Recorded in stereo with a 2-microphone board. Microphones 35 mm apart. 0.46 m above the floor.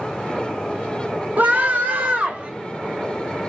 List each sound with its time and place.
1.4 s a scream: 55° right (ahead or behind), 1.2 m; by 2.5 s 40° right (ahead or behind), 1.5 m